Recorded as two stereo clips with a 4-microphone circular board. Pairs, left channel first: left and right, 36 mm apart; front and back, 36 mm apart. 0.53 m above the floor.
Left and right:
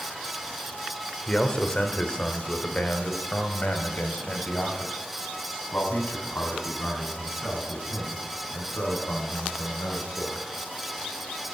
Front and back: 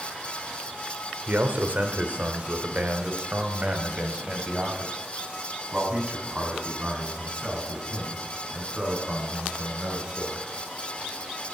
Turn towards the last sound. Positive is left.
turn(degrees=110)